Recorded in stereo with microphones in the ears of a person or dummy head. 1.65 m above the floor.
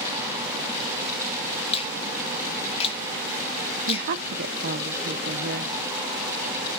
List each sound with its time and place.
1.7 s a finger snap: 35° left (ahead or behind), 3 m
3.9 s a woman speaking: 50° right (ahead or behind), 1.0 m